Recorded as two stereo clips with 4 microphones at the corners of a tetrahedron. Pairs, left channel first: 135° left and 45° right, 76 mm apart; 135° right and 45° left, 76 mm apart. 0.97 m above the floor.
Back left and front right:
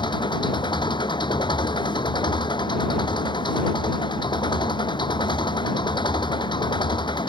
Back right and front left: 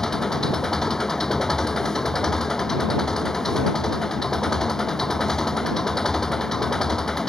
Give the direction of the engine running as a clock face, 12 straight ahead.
7 o'clock.